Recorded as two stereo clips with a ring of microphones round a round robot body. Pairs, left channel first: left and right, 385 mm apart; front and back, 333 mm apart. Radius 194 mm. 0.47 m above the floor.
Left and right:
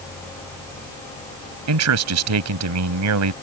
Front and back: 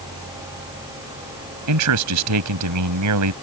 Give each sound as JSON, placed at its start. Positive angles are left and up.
{"t": 1.7, "sound": "a man speaking", "azimuth_deg": -135}